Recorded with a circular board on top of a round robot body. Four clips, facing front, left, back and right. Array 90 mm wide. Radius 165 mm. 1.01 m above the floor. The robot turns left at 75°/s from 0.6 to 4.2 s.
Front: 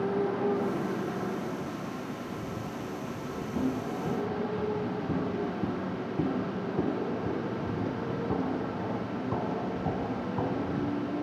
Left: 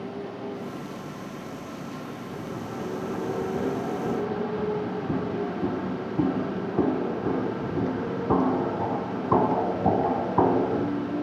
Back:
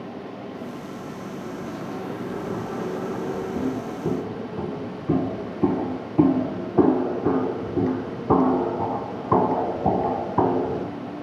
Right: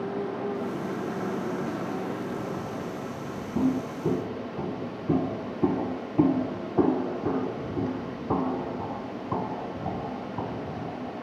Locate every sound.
0.0 s a motorcycle: 20° right; by 11.2 s 70° left
3.5 s footsteps: 90° right; by 10.9 s 130° left